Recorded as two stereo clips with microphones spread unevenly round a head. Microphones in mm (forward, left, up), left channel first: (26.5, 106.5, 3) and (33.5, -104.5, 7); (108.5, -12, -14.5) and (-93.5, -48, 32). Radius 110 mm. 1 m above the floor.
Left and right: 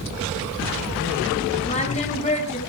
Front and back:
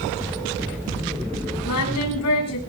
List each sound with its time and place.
1.6 s singing: 35° left, 7 m